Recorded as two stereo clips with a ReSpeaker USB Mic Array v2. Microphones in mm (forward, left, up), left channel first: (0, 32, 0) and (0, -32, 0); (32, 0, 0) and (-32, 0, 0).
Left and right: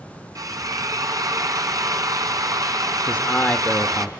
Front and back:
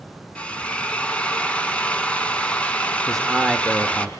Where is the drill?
70° right, 1.8 m.